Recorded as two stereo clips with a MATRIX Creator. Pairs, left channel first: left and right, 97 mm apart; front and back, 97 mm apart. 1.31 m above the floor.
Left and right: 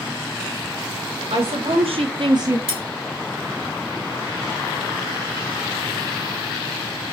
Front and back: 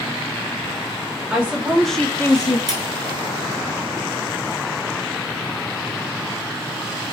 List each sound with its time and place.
1.3 s a woman speaking: 100° right, 1.6 m; by 2.6 s 25° right, 0.5 m
2.7 s cutlery clinking: 95° right, 1.6 m